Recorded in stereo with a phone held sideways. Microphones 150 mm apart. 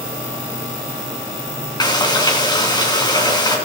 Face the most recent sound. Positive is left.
turn(degrees=25)  # may be behind; listen again after turning